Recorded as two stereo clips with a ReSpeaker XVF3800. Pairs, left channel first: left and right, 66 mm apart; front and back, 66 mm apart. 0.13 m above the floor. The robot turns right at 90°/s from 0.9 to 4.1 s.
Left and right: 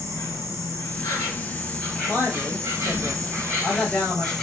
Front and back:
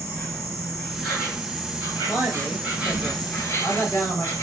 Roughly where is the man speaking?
Behind right.